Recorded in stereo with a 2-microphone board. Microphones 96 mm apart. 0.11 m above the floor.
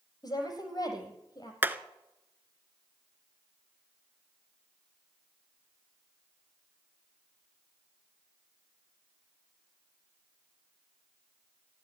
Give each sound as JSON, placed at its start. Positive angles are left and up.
{"t": 0.2, "sound": "a woman speaking", "side_deg": 40, "distance_m": 3.5}
{"t": 1.6, "sound": "hammering", "side_deg": -20, "distance_m": 0.9}